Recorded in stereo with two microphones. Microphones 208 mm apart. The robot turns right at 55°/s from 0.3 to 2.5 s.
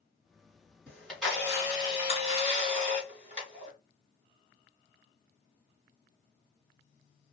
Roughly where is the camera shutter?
Behind.